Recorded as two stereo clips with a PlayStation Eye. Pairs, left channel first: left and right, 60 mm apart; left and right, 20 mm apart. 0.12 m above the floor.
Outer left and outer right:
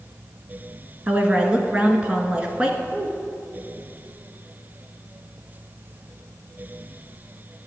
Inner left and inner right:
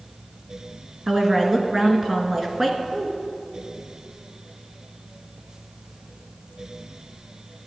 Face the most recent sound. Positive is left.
turn(degrees=-20)  # may be behind; listen again after turning